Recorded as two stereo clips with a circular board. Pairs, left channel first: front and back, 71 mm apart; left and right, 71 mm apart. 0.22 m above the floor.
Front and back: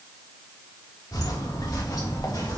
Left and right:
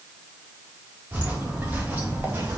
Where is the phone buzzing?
No phone buzzing in this recording.